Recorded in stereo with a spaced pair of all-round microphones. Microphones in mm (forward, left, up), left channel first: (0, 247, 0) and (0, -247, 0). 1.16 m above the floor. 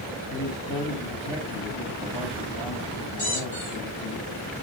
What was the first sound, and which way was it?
A man speaking, 80° left.